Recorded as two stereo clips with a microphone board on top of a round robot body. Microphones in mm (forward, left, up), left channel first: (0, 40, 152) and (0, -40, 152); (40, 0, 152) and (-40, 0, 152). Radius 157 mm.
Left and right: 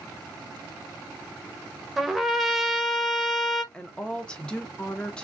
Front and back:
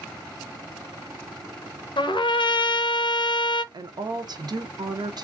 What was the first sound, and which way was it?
A trumpet, straight ahead.